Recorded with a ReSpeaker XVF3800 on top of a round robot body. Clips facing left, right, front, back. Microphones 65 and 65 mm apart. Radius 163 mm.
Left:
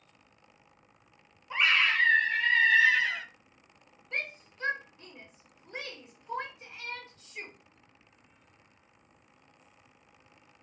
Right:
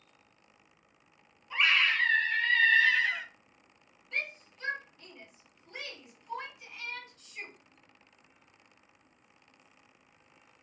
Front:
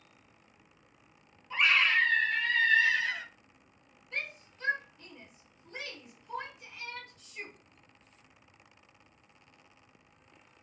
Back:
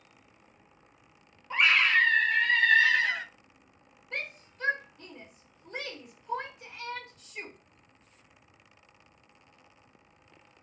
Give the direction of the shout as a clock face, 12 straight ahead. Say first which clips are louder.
Even, back 1 dB; 7 o'clock.